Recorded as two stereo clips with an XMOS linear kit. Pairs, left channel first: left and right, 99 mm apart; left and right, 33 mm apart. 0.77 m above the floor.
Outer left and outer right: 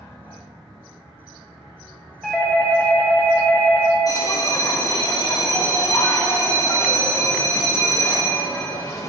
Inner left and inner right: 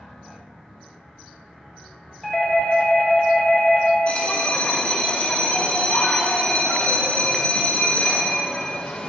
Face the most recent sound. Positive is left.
turn(degrees=35)  # may be behind; listen again after turning